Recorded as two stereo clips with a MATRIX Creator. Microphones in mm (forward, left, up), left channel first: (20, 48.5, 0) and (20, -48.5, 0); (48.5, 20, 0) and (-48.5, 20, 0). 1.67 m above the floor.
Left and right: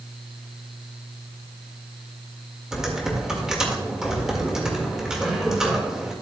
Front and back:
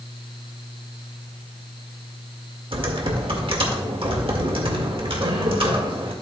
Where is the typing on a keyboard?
175° right, 1.7 m.